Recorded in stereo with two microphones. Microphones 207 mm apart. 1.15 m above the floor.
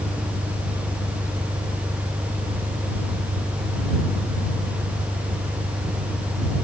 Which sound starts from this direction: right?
An engine running, at 0.0 s.